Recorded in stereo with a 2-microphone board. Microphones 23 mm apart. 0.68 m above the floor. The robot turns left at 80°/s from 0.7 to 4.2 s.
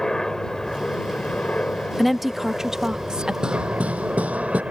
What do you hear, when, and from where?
0.0 s a helicopter: 155° left; by 4.7 s 125° right
2.0 s a woman speaking: 10° left; by 3.3 s 100° right
3.4 s hammering: 35° right; by 4.6 s 100° right